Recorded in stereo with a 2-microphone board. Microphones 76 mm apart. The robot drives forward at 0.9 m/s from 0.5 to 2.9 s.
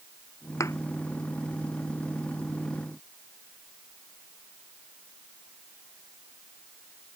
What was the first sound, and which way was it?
A thud, 45° left (ahead or behind).